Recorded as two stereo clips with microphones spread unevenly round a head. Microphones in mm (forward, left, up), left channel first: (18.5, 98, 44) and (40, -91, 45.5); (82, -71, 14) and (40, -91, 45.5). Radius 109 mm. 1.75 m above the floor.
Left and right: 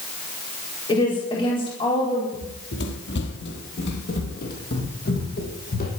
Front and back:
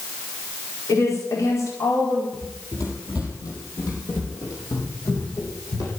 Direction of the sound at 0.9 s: 30° left.